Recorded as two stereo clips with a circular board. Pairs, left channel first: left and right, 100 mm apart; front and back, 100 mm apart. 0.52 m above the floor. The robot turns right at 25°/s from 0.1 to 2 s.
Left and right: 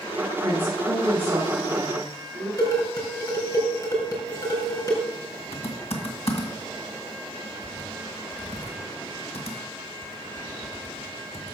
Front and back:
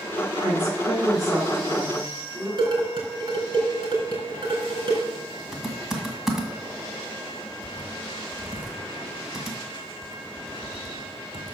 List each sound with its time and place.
0.4 s a woman speaking: 150° right, 4.5 m; by 2.5 s 110° right, 4.5 m
2.6 s dishes clattering: 140° left, 4 m
5.5 s typing on a keyboard: 95° left, 2 m